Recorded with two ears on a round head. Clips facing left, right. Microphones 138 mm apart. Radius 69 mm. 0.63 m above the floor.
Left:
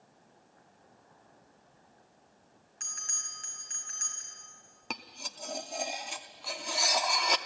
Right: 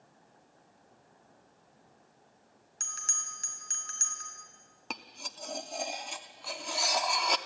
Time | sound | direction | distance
2.8 | a bell | 50° right (ahead or behind) | 3.5 m
4.9 | cutlery clinking | centre (ahead or behind) | 0.6 m